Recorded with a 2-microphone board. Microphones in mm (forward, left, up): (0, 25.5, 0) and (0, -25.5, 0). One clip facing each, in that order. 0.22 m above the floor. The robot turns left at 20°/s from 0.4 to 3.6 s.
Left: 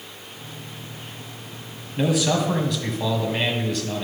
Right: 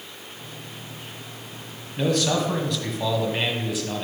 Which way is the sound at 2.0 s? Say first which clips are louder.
Left 1 dB; 20° left.